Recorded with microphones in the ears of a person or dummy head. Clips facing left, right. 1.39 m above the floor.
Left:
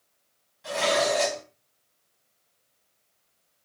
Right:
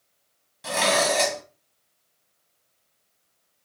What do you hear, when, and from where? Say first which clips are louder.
0.6 s dishes clattering: right 1 dB; 60° right (ahead or behind), 0.8 m